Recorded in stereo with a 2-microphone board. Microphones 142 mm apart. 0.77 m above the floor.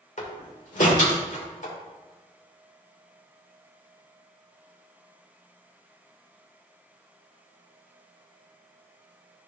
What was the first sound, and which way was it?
A door slam, 65° left (ahead or behind).